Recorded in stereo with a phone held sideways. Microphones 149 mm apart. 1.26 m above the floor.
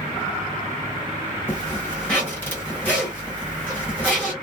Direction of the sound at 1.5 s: 10° left (ahead or behind).